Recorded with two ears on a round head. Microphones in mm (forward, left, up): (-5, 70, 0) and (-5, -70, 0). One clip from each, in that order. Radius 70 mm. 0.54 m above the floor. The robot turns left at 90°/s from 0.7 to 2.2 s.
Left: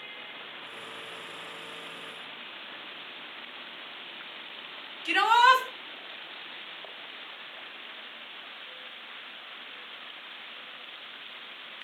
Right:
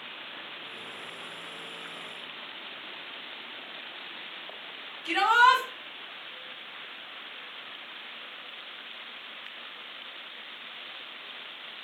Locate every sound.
5.0 s a shout: 45° left (ahead or behind), 4 m